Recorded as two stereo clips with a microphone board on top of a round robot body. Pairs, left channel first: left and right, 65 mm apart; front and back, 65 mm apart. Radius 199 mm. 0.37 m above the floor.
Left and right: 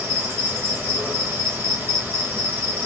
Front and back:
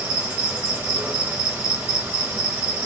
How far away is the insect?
About 1.6 m.